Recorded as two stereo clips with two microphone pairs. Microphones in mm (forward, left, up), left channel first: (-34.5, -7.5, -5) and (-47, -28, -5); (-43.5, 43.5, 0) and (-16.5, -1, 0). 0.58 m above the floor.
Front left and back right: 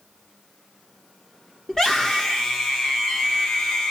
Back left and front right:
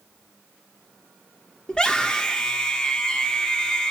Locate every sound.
1.7 s a scream: 95° left, 1.0 m